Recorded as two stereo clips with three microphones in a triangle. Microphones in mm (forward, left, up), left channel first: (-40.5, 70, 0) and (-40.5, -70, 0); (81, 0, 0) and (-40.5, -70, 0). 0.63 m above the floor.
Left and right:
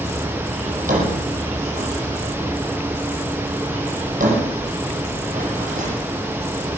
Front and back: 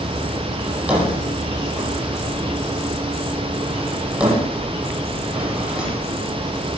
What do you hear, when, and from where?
0.7 s a drawer: 70° right, 7 m